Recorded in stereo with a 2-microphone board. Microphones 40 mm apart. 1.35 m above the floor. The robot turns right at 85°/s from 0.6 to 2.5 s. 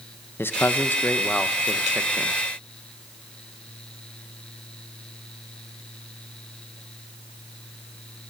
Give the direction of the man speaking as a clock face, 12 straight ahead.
9 o'clock.